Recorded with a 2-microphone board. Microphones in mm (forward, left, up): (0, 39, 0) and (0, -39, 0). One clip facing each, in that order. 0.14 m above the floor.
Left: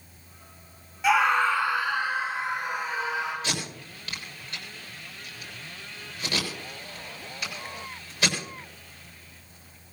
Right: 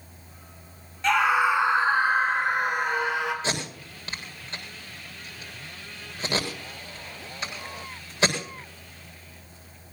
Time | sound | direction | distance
1.0 | a scream | 10° left (ahead or behind) | 1.5 m
3.4 | tape being pulled | 30° right (ahead or behind) | 7 m